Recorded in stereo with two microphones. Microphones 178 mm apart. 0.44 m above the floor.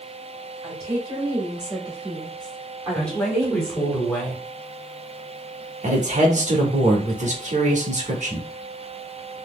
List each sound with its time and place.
0.6 s a woman speaking: 20° right (ahead or behind), 1.9 m; by 4.0 s 15° right (ahead or behind), 1.4 m
3.0 s a woman speaking: 5° left (ahead or behind), 1.3 m
5.8 s a man speaking: 40° right (ahead or behind), 1.0 m